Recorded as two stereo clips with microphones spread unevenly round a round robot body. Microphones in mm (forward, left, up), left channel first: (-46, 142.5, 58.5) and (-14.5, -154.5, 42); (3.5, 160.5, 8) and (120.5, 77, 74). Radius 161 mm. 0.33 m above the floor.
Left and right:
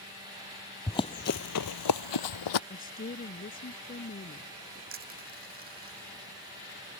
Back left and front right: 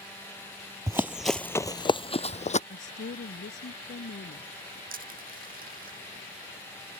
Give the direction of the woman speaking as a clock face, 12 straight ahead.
7 o'clock.